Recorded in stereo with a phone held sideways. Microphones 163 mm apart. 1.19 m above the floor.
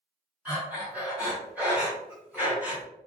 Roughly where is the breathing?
Centre.